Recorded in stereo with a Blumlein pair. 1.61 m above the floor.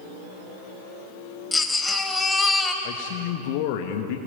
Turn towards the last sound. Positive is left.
turn(degrees=45)